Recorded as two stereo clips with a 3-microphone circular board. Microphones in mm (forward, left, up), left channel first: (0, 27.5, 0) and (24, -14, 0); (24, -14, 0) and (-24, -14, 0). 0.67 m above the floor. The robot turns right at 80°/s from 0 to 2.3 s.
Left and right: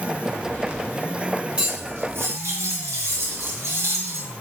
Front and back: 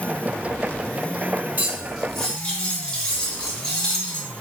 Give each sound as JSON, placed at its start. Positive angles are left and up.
{"t": 1.6, "sound": "cutlery clinking", "azimuth_deg": -125, "distance_m": 1.2}